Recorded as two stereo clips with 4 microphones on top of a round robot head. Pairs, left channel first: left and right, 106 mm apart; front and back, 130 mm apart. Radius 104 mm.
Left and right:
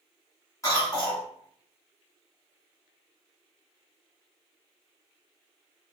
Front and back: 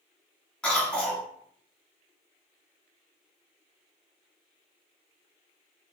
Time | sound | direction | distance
0.6 | a cough | 75° left | 1.6 m